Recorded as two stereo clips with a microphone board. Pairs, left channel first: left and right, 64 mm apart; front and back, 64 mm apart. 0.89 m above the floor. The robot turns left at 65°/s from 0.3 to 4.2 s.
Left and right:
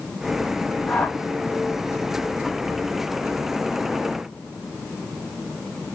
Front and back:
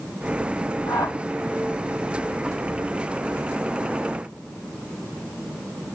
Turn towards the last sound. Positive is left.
turn(degrees=170)